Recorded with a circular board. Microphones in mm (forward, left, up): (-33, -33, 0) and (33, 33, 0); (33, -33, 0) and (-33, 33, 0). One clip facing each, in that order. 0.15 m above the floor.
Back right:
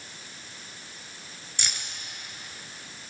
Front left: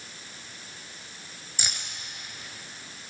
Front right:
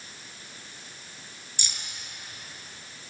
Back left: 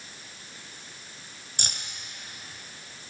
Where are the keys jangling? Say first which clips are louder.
Even, back left 3 dB; 125° left, 1.2 m.